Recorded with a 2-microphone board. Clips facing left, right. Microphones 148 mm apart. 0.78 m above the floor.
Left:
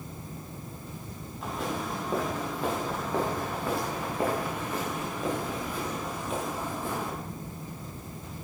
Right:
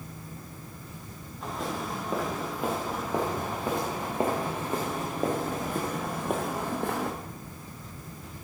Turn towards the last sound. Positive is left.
turn(degrees=-70)  # may be behind; listen again after turning